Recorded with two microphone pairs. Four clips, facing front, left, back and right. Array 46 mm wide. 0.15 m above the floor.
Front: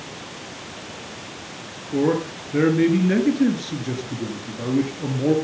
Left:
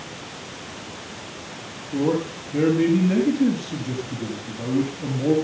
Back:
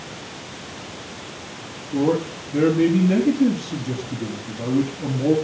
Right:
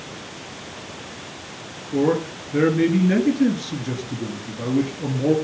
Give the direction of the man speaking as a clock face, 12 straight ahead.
1 o'clock.